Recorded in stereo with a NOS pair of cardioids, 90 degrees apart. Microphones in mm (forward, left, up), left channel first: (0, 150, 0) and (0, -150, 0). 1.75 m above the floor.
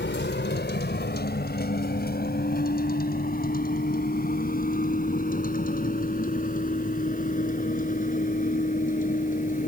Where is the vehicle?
35° left; by 9.7 s 25° left.